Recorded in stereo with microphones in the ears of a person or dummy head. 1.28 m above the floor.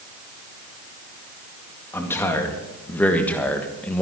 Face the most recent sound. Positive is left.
turn(degrees=5)  # may be behind; listen again after turning